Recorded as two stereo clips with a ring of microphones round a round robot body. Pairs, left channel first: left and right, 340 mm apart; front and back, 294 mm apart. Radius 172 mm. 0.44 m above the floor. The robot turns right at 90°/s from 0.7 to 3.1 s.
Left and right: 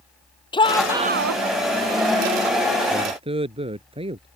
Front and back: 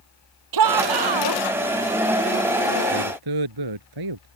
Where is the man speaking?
175° left; by 4.3 s 165° right.